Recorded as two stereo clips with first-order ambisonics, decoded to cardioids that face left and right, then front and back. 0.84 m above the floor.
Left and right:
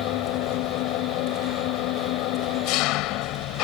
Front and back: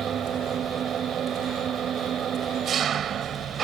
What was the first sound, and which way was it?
An engine running, 120° left.